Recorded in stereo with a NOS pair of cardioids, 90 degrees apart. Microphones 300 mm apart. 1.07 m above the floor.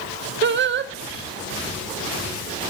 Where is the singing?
40° right, 0.7 m.